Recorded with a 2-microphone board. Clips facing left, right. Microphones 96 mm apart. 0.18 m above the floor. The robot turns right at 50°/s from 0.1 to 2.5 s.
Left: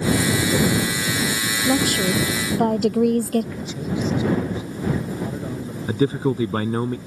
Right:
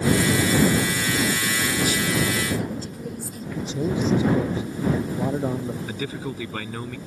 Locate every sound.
1.6 s a woman speaking: 55° left; by 3.5 s 95° left
3.5 s a man speaking: 30° right (ahead or behind)
5.9 s a man speaking: 35° left (ahead or behind)